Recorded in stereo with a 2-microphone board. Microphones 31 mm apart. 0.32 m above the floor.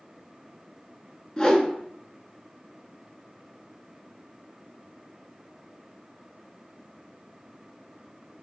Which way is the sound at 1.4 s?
20° left (ahead or behind).